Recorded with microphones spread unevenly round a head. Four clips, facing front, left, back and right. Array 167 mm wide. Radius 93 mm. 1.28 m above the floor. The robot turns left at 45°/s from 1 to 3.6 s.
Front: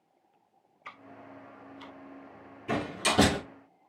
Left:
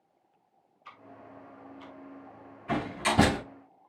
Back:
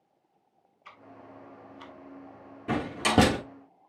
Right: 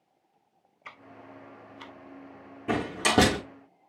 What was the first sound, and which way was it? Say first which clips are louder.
Ticking: right 1 dB, front 1 dB; 60° right.